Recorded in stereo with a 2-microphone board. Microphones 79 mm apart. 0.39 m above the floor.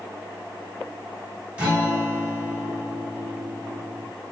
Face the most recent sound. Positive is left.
turn(degrees=-20)  # may be behind; listen again after turning